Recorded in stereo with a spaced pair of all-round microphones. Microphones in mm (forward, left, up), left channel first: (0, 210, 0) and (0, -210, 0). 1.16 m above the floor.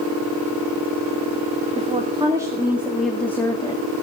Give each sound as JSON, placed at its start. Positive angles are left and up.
{"t": 1.8, "sound": "a woman speaking", "side_deg": -15, "distance_m": 2.5}